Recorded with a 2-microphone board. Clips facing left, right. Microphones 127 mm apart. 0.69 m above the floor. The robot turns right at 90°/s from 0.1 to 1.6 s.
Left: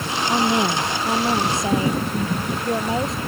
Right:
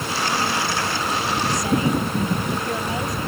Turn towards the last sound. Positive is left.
turn(degrees=155)